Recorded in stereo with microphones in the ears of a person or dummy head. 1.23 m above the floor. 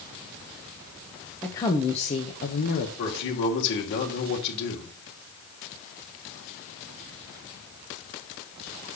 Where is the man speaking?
65° left (ahead or behind), 2.5 m.